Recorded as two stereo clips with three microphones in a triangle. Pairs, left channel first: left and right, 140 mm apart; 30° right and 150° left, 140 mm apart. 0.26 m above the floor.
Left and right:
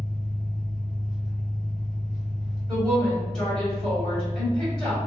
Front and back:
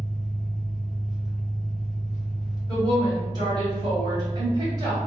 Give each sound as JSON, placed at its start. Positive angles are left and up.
{"t": 0.0, "sound": "an engine running", "azimuth_deg": 70, "distance_m": 0.9}
{"t": 2.7, "sound": "a woman speaking", "azimuth_deg": 170, "distance_m": 1.7}